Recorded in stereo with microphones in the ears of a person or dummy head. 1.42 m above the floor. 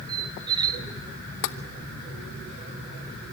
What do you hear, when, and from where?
0.1 s a squeak: 25° right (ahead or behind), 1.5 m
1.4 s tapping: 65° left (ahead or behind), 0.9 m